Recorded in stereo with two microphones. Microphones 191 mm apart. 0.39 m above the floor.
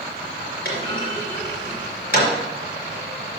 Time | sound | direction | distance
0.7 | a clunk | 50° left (ahead or behind) | 4 m